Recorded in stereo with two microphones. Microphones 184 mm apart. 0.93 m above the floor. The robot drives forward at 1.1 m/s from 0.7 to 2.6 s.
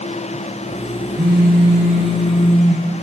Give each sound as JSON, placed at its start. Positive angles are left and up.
{"t": 1.2, "sound": "a phone buzzing", "side_deg": -60, "distance_m": 1.9}